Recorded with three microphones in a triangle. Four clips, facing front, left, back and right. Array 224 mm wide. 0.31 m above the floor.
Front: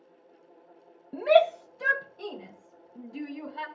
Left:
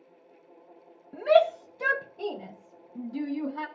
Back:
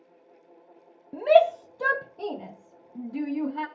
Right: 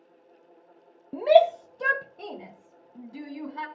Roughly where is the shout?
Right.